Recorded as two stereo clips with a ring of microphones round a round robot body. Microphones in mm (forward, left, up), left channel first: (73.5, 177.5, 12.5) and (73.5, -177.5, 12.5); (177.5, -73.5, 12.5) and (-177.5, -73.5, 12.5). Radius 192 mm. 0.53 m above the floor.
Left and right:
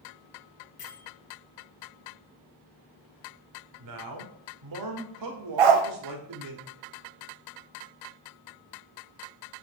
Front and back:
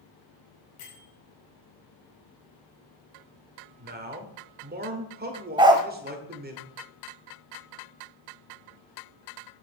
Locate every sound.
0.8 s a bell: 35° left, 2.5 m
3.8 s a man speaking: 120° right, 1.7 m
5.6 s a dog barking: 100° right, 1.0 m